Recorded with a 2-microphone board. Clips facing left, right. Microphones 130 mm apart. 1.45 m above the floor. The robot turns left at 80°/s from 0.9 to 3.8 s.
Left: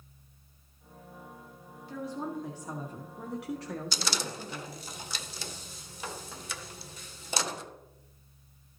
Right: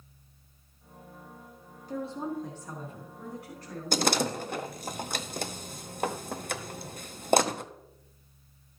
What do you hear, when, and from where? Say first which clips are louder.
1.9 s a woman speaking: right 2 dB; 135° right, 1.4 m; by 4.9 s 70° left, 1.4 m
3.9 s a door slam: right 9 dB; 55° right (ahead or behind), 0.7 m